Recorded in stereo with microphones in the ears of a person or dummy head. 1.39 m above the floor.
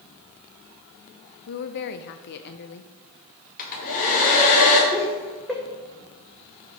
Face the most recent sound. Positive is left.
turn(degrees=0)  # may be behind; listen again after turning